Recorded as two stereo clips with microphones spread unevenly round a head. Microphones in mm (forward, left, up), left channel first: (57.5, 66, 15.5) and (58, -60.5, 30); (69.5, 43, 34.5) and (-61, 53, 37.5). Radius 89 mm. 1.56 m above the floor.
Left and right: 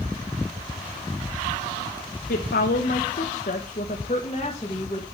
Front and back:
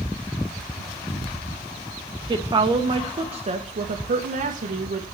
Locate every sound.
2.3 s a woman speaking: 110° left, 1.6 m; by 5.0 s 165° left, 1.8 m